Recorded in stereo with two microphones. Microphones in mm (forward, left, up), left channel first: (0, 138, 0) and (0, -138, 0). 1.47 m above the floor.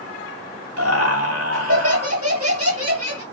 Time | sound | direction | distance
0.8 | laughter | 55° right (ahead or behind) | 2.5 m